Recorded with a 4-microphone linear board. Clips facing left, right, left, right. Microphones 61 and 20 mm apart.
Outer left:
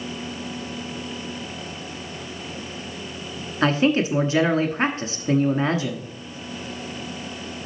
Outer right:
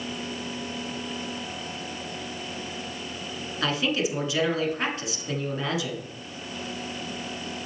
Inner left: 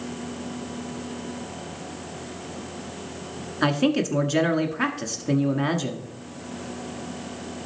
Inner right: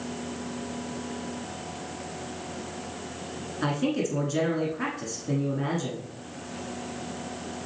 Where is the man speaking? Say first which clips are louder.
Outer left 7 dB, inner left 5 dB; 35° left (ahead or behind), 1.2 m.